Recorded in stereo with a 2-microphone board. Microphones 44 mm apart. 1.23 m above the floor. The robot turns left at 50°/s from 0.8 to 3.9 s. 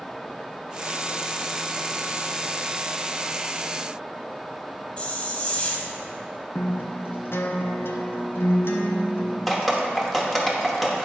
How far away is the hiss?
About 1.1 m.